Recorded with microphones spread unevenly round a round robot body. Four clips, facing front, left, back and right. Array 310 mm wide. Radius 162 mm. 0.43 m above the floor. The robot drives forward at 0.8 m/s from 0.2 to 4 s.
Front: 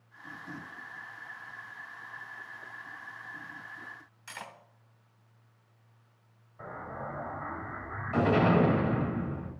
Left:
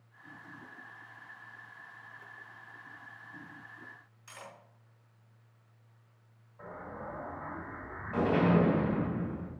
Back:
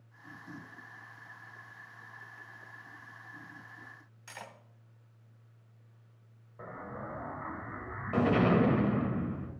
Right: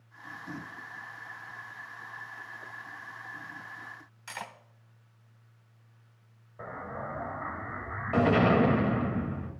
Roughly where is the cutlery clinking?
Right.